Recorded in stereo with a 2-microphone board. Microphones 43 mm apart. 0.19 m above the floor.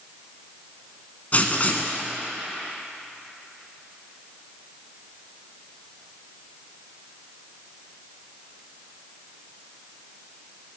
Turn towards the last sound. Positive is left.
turn(degrees=40)  # may be behind; listen again after turning